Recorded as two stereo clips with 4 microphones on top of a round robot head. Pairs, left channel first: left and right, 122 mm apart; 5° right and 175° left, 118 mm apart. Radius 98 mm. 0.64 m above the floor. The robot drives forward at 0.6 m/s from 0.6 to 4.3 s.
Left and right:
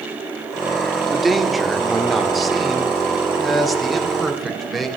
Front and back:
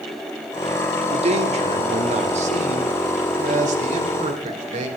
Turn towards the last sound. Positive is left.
turn(degrees=180)